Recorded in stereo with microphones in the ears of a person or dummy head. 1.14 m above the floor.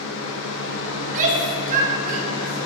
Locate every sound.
0.0 s a fan: 65° left (ahead or behind), 0.9 m
1.0 s a shout: 40° right (ahead or behind), 0.8 m